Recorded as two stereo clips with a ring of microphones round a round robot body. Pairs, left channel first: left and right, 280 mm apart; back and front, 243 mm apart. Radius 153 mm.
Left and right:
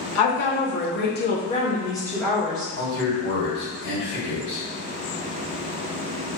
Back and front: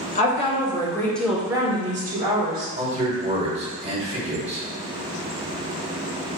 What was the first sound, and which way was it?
A woman speaking, 125° left.